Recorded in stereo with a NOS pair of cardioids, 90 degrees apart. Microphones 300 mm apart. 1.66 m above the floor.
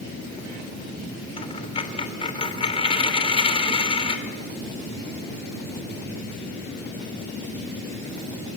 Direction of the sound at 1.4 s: 20° left.